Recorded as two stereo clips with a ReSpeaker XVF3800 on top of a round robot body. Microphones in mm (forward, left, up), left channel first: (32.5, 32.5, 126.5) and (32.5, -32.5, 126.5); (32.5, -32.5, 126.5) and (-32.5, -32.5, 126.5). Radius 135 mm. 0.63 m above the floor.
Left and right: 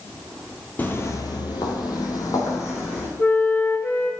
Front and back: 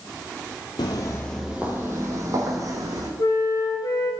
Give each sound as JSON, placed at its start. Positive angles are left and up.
{"t": 0.8, "sound": "footsteps", "azimuth_deg": 30, "distance_m": 0.9}
{"t": 3.2, "sound": "a flute", "azimuth_deg": 35, "distance_m": 1.6}